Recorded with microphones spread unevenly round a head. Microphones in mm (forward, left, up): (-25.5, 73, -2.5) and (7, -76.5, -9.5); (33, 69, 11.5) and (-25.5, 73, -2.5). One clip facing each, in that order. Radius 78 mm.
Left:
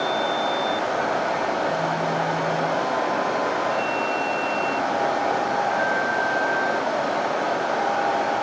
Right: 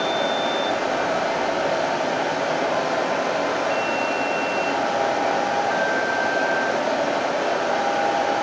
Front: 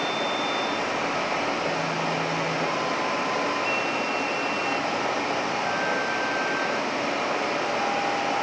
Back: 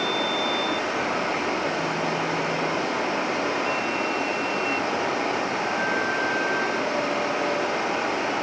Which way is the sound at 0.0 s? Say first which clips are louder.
Right 1 dB, back 1 dB; 120° right.